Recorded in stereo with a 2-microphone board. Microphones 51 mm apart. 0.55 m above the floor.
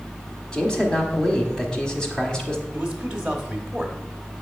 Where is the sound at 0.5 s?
15° left (ahead or behind), 1.0 m.